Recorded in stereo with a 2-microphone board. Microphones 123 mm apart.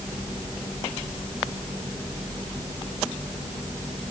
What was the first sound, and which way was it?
Only background noise.